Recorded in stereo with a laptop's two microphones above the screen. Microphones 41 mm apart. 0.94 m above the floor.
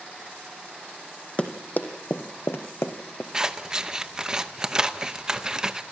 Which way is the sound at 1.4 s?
35° left (ahead or behind).